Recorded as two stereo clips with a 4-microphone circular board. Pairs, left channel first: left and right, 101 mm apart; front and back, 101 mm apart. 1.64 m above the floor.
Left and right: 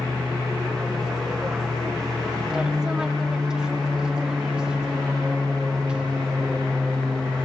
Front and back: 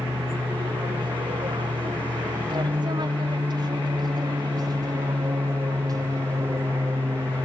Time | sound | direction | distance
0.0 | an aircraft | 175° right | ?